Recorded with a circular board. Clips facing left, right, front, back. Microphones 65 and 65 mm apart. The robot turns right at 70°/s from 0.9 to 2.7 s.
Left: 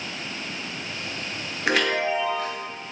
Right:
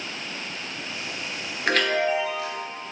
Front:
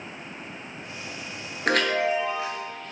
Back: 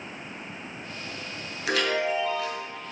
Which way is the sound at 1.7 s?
5° left.